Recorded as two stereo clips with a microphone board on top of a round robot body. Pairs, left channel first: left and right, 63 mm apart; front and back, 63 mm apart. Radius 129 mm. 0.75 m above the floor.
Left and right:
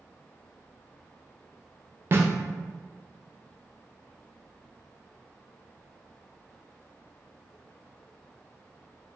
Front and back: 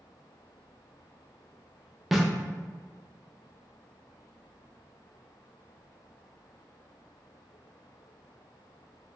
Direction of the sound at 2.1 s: 95° right.